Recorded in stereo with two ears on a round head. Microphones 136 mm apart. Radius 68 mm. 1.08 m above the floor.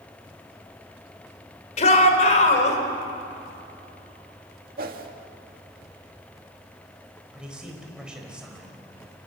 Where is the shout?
50° left (ahead or behind), 3.5 m.